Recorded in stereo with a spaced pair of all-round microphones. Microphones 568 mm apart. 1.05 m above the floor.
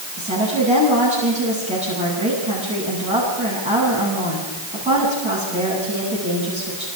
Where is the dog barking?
I don't hear a dog barking.